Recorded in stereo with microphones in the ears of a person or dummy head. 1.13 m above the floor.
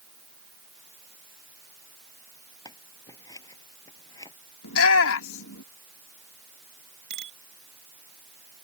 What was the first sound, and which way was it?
Scissors, 15° left (ahead or behind).